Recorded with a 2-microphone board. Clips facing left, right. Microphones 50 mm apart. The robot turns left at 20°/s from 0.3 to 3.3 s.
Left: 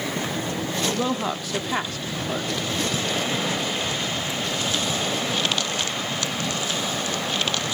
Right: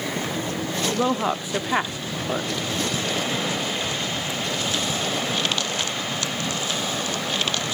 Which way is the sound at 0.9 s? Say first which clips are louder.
Right 2 dB; 20° right (ahead or behind).